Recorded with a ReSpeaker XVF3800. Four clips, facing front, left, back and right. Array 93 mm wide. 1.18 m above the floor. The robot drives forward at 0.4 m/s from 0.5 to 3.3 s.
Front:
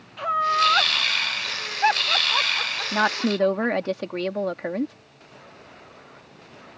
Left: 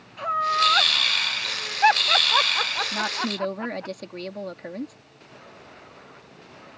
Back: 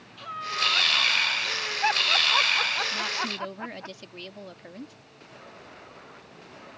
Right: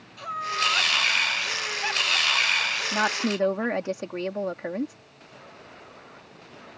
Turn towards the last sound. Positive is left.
turn(degrees=-20)